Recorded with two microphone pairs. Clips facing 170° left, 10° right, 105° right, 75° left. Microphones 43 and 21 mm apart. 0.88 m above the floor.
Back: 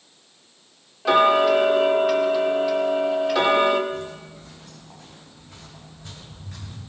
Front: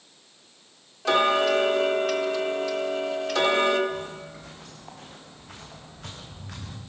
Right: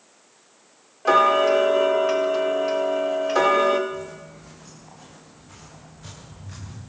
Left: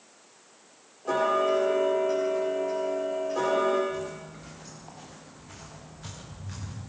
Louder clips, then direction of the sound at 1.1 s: Back 5 dB, right 8 dB; 110° right.